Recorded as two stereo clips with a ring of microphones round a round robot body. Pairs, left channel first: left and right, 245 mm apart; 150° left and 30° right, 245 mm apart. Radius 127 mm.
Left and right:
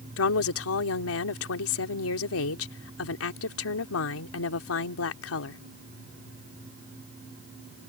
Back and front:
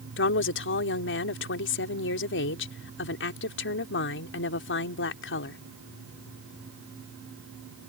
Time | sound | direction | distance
0.2 | a woman speaking | 115° left | ?